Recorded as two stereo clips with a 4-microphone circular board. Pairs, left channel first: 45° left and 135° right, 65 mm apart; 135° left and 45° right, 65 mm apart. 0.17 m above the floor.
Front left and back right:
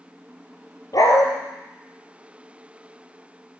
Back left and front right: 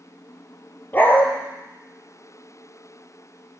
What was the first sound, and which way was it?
A dog barking, 75° left.